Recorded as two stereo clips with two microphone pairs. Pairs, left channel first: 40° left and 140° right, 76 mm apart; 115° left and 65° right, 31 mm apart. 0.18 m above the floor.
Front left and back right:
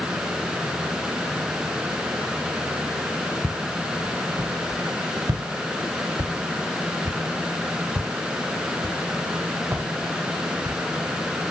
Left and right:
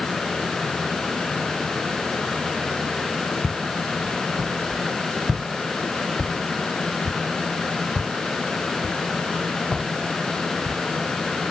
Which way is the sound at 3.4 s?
105° right.